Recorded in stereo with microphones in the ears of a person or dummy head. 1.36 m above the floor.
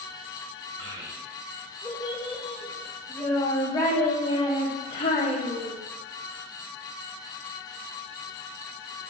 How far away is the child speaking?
About 3 m.